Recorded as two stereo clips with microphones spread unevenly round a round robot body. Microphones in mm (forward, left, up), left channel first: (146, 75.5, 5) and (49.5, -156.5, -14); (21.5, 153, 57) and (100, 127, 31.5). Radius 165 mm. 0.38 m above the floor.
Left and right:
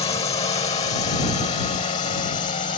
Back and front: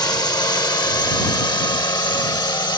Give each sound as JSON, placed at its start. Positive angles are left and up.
{"t": 0.0, "sound": "a drone", "azimuth_deg": 130}